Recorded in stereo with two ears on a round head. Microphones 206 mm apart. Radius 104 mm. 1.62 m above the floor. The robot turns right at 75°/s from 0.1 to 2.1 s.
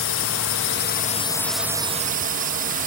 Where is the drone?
70° left; by 2.9 s 140° right.